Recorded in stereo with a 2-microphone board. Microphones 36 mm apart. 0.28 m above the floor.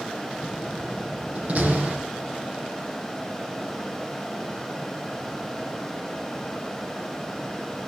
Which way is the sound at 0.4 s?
40° right (ahead or behind).